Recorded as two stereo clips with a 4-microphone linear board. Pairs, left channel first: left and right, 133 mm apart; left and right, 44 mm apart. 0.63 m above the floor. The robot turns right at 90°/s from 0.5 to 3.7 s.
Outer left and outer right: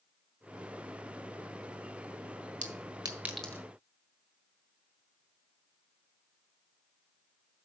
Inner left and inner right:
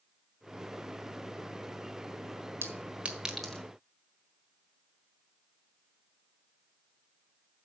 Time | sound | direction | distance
2.6 | a clink | 70° right (ahead or behind) | 1.4 m